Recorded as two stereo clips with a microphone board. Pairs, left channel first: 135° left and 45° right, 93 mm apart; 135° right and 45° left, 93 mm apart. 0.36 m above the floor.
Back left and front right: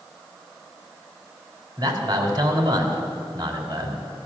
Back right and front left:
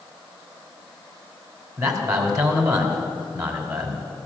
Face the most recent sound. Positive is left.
turn(degrees=-5)